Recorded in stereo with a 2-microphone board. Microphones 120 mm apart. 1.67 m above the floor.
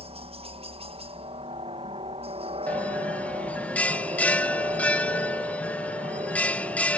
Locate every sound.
0.0 s a helicopter: 55° right (ahead or behind)
2.7 s a bell: 10° left (ahead or behind)